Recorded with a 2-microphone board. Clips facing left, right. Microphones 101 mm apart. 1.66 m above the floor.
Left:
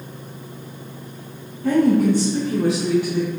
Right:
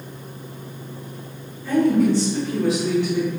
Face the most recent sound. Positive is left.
turn(degrees=5)  # may be behind; listen again after turning